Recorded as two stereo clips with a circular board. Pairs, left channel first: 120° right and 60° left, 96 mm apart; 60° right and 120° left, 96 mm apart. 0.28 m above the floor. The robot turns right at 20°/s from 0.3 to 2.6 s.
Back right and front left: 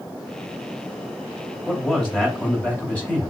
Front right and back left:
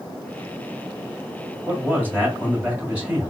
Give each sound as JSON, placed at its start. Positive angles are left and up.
{"t": 1.7, "sound": "a man speaking", "azimuth_deg": 165, "distance_m": 1.6}